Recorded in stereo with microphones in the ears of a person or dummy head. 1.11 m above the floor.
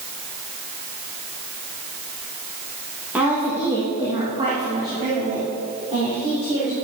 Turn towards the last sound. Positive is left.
turn(degrees=-30)  # may be behind; listen again after turning